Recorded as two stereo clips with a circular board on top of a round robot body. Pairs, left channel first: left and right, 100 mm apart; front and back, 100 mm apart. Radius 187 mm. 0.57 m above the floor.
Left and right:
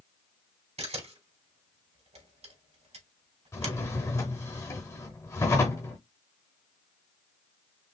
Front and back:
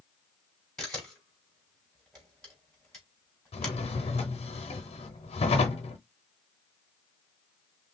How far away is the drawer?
About 0.6 m.